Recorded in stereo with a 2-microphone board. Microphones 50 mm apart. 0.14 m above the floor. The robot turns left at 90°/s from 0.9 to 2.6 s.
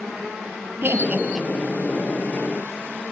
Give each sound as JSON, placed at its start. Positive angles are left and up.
{"t": 0.8, "sound": "laughter", "side_deg": -50, "distance_m": 3.0}